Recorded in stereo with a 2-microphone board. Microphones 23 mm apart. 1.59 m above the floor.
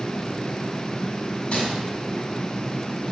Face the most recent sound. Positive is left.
turn(degrees=60)  # may be behind; listen again after turning